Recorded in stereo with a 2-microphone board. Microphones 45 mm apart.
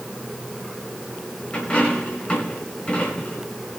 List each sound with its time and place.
1.5 s a dropped coin: 25° left (ahead or behind), 4.5 m